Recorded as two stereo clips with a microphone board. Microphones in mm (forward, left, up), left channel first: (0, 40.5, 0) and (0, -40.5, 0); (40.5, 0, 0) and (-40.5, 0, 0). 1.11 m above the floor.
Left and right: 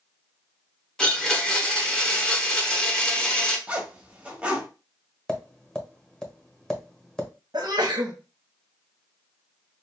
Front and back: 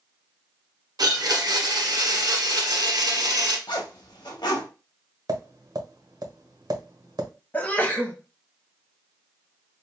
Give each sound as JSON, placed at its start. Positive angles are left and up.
{"t": 1.0, "sound": "a blender", "azimuth_deg": 170, "distance_m": 1.1}
{"t": 3.7, "sound": "a zipper", "azimuth_deg": -15, "distance_m": 1.2}
{"t": 5.3, "sound": "tapping", "azimuth_deg": 170, "distance_m": 1.3}
{"t": 7.5, "sound": "a sneeze", "azimuth_deg": -70, "distance_m": 1.2}